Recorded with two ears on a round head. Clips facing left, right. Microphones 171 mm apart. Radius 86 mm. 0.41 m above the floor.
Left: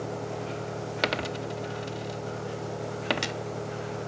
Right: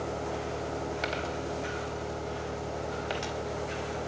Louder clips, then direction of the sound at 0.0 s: Even; 60° left (ahead or behind).